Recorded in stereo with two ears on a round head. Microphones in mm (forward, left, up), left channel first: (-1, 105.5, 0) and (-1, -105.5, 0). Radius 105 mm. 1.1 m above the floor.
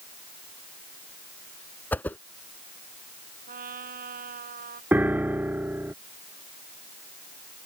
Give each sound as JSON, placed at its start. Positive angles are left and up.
{"t": 1.9, "sound": "a whoosh", "side_deg": 10}
{"t": 3.5, "sound": "a trumpet", "side_deg": -40}
{"t": 4.9, "sound": "a piano", "side_deg": -10}